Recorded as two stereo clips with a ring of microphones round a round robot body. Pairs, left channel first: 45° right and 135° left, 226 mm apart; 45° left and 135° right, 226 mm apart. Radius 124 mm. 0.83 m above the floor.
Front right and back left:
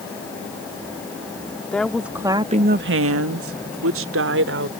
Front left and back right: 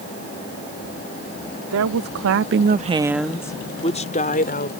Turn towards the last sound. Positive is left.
turn(degrees=95)